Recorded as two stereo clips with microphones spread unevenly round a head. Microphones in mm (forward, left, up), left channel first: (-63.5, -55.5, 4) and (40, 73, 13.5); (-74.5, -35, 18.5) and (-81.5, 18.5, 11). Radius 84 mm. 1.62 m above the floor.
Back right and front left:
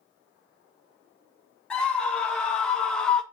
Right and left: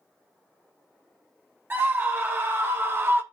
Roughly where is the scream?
Behind left.